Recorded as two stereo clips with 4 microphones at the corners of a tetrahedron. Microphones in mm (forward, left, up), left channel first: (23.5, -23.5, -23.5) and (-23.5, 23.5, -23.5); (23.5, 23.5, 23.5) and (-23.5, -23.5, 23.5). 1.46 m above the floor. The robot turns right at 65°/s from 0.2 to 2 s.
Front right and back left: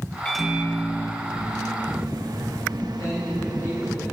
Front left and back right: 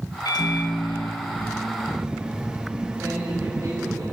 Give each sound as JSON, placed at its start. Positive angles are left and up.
{"t": 0.2, "sound": "a microwave", "azimuth_deg": 35, "distance_m": 1.5}
{"t": 3.0, "sound": "a man speaking", "azimuth_deg": -85, "distance_m": 8.0}